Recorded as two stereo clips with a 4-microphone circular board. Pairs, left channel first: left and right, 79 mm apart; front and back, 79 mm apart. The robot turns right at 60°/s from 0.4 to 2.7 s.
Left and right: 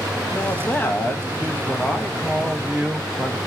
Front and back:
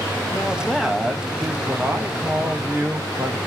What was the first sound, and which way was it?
A man speaking, 65° left.